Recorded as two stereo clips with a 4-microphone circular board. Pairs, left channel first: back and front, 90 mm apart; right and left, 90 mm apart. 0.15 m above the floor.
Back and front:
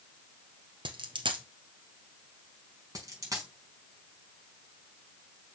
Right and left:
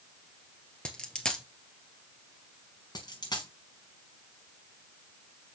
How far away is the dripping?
No dripping in this recording.